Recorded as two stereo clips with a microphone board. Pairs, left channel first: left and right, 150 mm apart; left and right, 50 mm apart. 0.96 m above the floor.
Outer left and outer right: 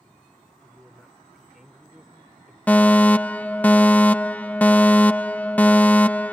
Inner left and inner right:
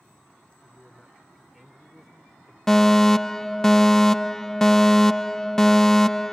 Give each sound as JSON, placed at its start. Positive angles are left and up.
{"t": 0.6, "sound": "a man speaking", "side_deg": 0}
{"t": 2.7, "sound": "a fire alarm", "side_deg": 10}